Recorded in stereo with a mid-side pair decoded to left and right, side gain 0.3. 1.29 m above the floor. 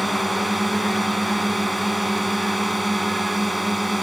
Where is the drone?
10° right.